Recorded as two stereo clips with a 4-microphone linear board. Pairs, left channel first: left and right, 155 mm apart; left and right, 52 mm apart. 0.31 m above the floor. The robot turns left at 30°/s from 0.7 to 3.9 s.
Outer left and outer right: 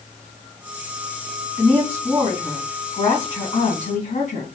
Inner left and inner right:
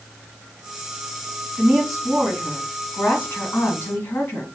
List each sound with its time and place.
1.6 s a woman speaking: straight behind, 2 m; by 4.5 s 110° left, 2 m